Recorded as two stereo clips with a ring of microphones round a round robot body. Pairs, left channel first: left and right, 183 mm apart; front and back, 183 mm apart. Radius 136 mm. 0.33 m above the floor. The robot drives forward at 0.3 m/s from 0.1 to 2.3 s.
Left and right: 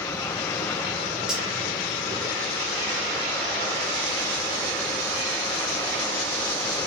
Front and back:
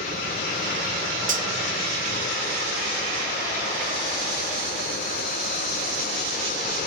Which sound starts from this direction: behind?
Cutlery clinking, at 1.3 s.